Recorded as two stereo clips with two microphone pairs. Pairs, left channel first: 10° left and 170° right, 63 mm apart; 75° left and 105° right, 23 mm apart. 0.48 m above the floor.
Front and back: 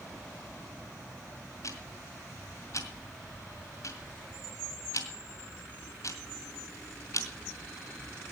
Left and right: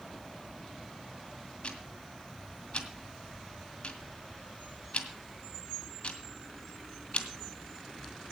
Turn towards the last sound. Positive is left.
turn(degrees=40)